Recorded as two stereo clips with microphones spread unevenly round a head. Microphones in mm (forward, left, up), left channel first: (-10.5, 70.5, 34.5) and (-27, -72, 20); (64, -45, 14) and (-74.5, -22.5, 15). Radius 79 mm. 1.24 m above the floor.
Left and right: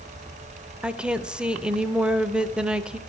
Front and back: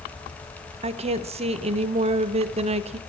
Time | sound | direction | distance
0.8 | a woman speaking | 170° right | 0.6 m